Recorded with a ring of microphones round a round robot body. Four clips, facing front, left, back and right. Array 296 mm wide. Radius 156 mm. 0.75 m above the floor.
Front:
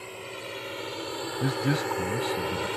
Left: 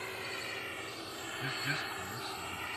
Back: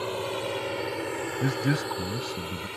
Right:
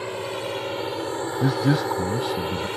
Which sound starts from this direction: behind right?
A drone, at 0.0 s.